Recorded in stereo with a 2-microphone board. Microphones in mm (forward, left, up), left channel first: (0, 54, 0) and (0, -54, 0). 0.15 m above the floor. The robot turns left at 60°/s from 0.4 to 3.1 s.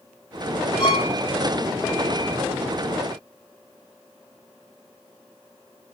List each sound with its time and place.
0.8 s a violin: 50° left (ahead or behind), 0.8 m